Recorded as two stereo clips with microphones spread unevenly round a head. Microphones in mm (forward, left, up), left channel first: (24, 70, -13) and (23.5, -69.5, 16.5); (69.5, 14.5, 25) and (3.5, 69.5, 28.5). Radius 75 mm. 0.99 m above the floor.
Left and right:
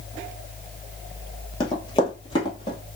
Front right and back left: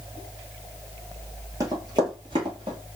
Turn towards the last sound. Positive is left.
turn(degrees=155)